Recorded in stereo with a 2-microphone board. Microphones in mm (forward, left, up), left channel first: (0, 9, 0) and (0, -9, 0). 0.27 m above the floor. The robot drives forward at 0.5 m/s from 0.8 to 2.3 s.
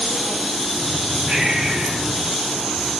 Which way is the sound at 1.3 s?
60° right (ahead or behind).